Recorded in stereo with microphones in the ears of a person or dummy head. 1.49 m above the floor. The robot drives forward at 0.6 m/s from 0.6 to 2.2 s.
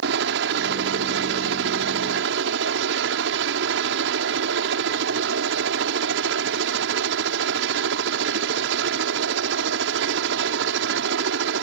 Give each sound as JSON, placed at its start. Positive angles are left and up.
{"t": 0.0, "sound": "a helicopter", "side_deg": -70}